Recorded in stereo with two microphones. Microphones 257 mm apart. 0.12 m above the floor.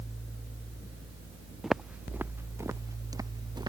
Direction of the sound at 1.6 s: Centre (ahead or behind).